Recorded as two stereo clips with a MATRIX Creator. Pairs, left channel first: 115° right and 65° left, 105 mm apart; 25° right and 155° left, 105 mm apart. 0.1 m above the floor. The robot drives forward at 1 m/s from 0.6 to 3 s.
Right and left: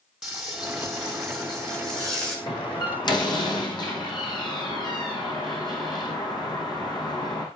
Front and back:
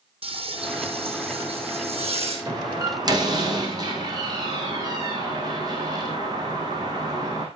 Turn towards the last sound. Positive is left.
turn(degrees=-155)